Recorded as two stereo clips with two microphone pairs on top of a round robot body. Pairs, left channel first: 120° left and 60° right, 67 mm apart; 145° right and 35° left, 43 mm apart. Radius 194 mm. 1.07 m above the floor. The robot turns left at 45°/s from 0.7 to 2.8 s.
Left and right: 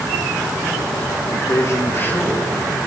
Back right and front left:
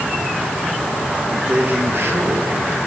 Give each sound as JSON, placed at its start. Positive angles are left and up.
{"t": 1.3, "sound": "a man speaking", "azimuth_deg": 95, "distance_m": 2.0}